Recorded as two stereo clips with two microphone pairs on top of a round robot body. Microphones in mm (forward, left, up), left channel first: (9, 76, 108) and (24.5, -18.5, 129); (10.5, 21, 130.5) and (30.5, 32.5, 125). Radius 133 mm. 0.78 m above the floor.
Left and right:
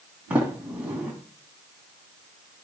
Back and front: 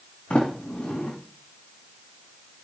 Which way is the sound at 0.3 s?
155° right.